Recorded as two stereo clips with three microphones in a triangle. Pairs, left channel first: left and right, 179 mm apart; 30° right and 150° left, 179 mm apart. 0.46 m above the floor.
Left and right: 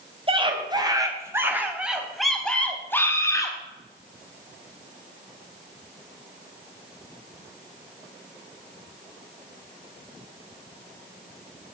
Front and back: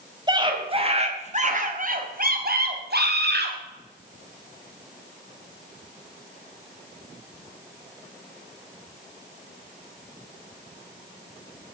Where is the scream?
145° right, 3 m; by 3.6 s 160° left, 3.5 m.